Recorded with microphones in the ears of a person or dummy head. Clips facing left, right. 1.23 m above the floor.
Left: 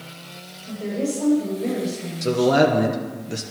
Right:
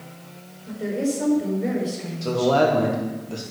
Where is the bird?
No bird in this recording.